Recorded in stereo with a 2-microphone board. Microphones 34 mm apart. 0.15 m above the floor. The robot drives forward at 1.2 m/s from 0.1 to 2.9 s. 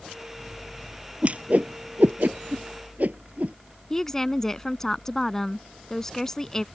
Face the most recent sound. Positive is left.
turn(degrees=15)  # may be behind; listen again after turning